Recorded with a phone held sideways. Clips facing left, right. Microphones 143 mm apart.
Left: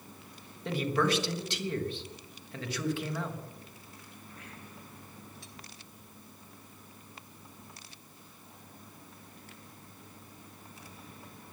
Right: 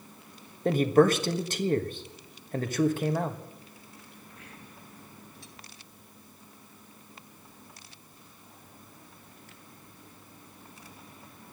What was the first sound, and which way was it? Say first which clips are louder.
A man speaking: right 8 dB; 45° right (ahead or behind).